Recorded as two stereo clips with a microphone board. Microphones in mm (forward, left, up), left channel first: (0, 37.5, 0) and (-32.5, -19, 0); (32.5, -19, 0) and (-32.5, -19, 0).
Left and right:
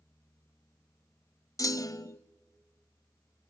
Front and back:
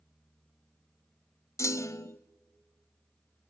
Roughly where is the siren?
I don't hear a siren.